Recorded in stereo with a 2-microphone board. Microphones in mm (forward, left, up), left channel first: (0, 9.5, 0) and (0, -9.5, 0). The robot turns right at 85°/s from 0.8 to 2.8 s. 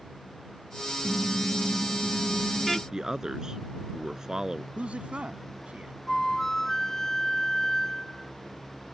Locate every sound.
1.0 s a car horn: 140° right; by 2.8 s 10° left
2.9 s a man speaking: 30° right (ahead or behind)
4.8 s a man speaking: 70° right (ahead or behind)
6.1 s a flute: 20° left (ahead or behind)